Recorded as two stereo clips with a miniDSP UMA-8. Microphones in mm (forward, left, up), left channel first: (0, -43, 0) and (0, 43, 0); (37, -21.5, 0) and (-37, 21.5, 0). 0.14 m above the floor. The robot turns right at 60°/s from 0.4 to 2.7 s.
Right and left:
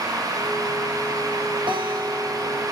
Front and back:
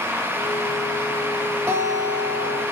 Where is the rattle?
No rattle in this recording.